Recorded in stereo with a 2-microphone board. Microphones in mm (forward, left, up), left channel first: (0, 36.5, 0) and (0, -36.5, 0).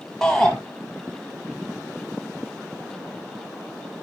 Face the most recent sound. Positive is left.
turn(degrees=10)  # may be behind; listen again after turning